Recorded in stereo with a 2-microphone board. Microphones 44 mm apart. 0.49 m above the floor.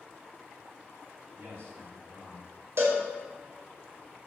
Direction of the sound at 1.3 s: 60° right (ahead or behind).